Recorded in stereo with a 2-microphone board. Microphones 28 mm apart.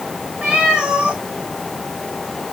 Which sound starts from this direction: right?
A cat meowing, at 0.4 s.